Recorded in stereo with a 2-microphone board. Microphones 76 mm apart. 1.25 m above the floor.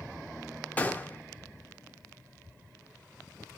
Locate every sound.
0.8 s a gunshot: 20° left (ahead or behind), 0.6 m